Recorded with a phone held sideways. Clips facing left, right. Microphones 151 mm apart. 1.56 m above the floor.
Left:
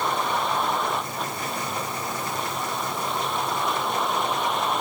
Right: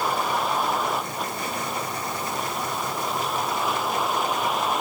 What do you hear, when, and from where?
0.0 s a vehicle: 5° right (ahead or behind)